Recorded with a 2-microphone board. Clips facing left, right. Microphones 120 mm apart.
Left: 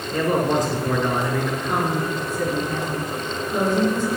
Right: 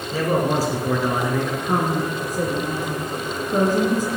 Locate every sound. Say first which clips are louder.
0.1 s a man speaking: even; 10° right (ahead or behind), 2.5 m
1.6 s a woman speaking: right 1 dB; 40° right (ahead or behind), 2 m